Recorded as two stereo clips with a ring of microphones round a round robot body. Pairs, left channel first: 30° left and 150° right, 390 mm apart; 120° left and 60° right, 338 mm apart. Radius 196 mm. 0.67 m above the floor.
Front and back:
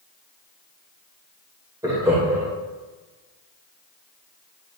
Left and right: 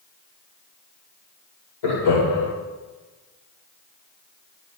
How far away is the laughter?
About 3 m.